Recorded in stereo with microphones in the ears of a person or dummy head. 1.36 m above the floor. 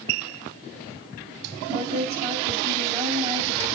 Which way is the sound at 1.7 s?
20° right (ahead or behind).